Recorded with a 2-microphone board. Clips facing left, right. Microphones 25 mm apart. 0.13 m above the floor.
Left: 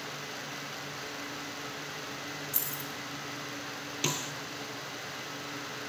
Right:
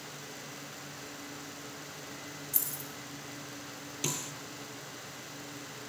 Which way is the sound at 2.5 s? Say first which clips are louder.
Left 3 dB; 10° left (ahead or behind).